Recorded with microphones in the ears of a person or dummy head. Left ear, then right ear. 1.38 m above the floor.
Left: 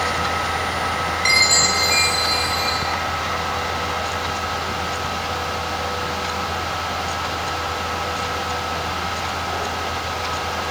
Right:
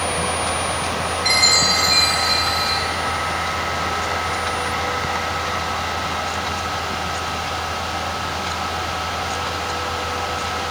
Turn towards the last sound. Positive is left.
turn(degrees=85)